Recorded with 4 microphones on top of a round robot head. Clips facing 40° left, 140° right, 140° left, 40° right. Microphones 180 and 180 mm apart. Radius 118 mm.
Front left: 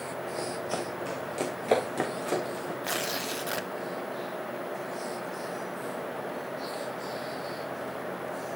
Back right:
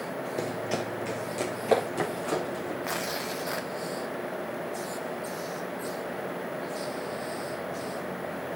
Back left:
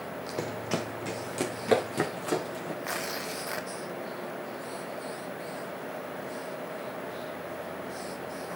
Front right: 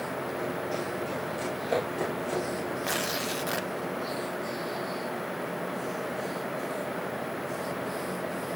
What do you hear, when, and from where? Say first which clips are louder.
0.4 s running footsteps: back right 3 dB, back left 2 dB; 160° left, 1.6 m; by 2.7 s 120° left, 4 m
2.8 s tearing paper: back right 1 dB, front right 4 dB; straight ahead, 1.2 m